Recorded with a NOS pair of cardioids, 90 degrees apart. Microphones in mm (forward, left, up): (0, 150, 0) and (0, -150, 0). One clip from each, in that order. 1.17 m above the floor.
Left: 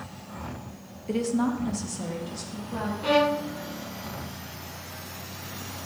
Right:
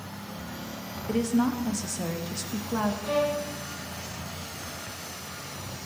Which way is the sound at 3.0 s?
60° left.